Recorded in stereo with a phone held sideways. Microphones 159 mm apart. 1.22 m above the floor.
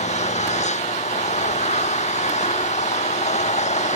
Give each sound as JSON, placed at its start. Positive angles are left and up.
{"t": 0.0, "sound": "an engine running", "side_deg": 45}